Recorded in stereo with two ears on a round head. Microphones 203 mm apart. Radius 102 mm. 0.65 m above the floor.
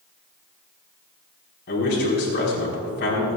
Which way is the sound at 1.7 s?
50° left (ahead or behind).